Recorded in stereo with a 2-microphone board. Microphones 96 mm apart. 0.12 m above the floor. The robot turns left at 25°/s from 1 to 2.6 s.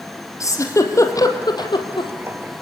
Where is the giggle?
35° left (ahead or behind), 2.5 m; by 2.1 s 60° left (ahead or behind), 2.5 m.